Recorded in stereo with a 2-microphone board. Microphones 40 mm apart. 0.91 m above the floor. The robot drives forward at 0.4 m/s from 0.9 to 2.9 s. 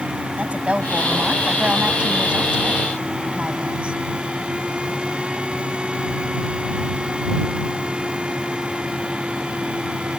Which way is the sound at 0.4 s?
30° right (ahead or behind).